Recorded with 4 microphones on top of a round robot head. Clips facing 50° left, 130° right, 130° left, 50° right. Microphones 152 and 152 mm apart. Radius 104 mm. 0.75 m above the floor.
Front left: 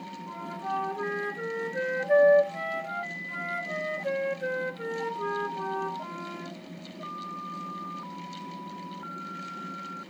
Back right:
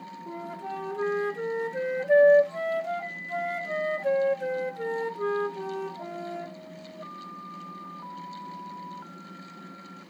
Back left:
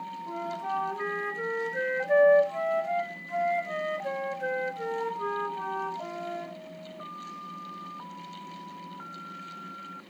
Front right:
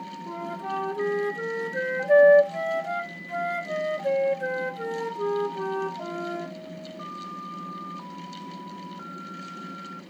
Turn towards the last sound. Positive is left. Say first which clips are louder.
# front left 1 dB, front right 1 dB
turn(degrees=-100)